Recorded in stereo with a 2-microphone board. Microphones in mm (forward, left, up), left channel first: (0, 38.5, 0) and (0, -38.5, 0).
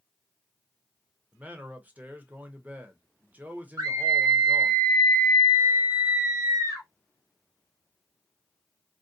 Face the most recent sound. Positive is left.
turn(degrees=-55)  # may be behind; listen again after turning